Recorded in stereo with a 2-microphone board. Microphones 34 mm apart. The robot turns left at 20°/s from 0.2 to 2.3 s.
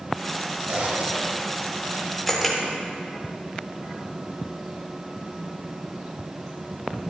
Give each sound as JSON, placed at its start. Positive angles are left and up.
{"t": 0.7, "sound": "a zipper", "side_deg": -45, "distance_m": 1.0}
{"t": 2.3, "sound": "a camera shutter", "side_deg": 5, "distance_m": 1.4}